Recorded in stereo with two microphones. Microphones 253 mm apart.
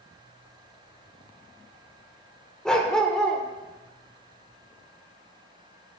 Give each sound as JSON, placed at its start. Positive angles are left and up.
{"t": 2.6, "sound": "a dog barking", "side_deg": 5, "distance_m": 0.8}